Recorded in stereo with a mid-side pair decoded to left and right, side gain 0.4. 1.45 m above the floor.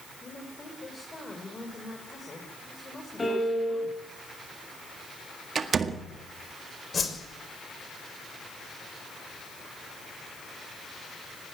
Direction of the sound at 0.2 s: 25° left.